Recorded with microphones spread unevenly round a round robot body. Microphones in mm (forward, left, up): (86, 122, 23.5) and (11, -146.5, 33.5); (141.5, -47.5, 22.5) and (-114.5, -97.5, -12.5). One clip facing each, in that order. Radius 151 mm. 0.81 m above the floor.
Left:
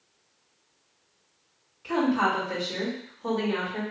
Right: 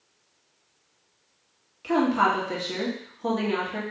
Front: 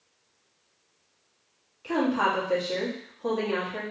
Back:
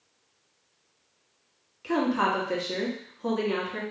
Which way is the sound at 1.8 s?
125° right.